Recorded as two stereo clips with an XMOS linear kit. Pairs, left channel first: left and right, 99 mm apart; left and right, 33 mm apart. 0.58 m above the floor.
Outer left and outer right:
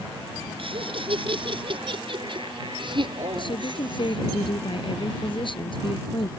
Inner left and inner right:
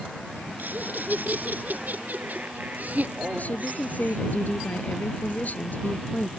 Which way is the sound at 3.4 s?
55° left (ahead or behind).